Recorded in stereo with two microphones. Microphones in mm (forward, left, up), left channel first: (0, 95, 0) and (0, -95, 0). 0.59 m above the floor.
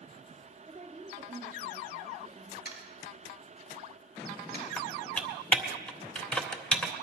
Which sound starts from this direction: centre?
Typing on a keyboard, at 4.8 s.